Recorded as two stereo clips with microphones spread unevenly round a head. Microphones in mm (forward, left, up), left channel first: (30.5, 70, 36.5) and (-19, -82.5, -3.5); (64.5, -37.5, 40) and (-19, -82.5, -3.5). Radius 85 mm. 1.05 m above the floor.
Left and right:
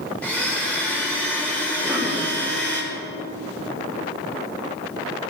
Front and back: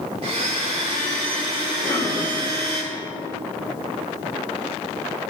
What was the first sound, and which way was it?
A blender, 150° left.